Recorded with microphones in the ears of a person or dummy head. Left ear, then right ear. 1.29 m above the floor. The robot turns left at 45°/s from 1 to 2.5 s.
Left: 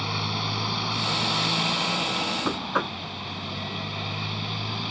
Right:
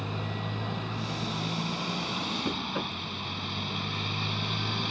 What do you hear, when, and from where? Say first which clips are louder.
0.0 s a motorcycle: left 8 dB; 70° left; by 4.9 s 5° left
2.5 s knocking: left 5 dB; 50° left (ahead or behind); by 3.0 s 55° left (ahead or behind)